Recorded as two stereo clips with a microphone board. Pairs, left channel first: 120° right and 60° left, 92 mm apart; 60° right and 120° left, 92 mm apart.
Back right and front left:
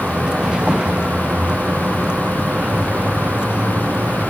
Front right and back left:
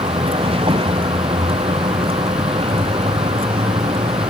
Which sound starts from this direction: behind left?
A vehicle, at 0.0 s.